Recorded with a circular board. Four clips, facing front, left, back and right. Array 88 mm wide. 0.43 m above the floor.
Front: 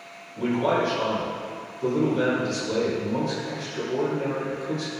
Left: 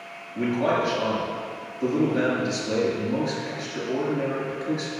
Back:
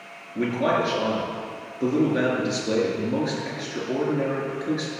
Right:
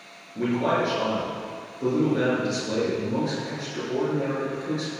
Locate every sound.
0.3 s a man speaking: 175° left, 7.5 m